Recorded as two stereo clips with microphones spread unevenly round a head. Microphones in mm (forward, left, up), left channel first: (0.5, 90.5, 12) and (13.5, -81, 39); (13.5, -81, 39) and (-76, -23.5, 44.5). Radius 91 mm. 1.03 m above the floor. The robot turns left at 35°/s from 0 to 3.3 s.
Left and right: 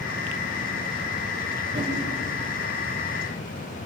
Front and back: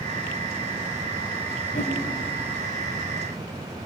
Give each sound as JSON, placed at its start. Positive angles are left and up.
{"t": 1.7, "sound": "a whoosh", "azimuth_deg": -20, "distance_m": 5.0}